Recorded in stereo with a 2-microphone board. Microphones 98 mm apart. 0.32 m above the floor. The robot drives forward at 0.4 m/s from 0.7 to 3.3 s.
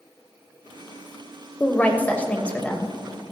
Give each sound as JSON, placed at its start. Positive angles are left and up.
{"t": 1.6, "sound": "a woman speaking", "side_deg": 15, "distance_m": 0.9}